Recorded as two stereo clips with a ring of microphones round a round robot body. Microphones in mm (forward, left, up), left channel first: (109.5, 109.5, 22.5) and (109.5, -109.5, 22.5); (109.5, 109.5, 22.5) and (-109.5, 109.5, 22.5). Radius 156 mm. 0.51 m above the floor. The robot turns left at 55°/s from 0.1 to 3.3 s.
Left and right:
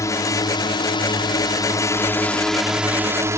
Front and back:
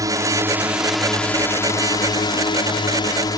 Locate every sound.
0.0 s a drone: 140° left; by 3.4 s 35° right